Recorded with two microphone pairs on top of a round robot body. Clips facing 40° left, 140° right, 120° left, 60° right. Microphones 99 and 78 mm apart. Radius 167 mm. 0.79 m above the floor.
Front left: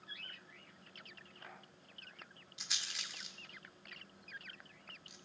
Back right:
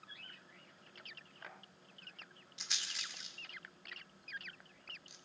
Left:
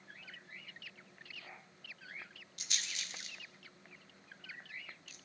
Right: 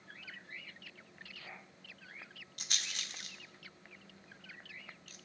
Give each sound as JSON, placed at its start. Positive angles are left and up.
{"t": 2.6, "sound": "a rattle", "azimuth_deg": -55, "distance_m": 1.6}